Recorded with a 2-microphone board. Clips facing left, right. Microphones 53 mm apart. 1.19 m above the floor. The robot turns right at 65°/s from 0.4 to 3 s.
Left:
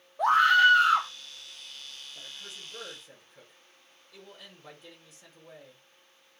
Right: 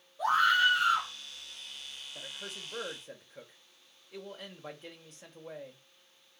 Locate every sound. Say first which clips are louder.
0.2 s a scream: left 5 dB; 65° left, 1.7 m; by 1.1 s 110° left, 1.7 m
2.1 s a man speaking: right 4 dB; 110° right, 2.5 m; by 5.8 s 55° right, 2.5 m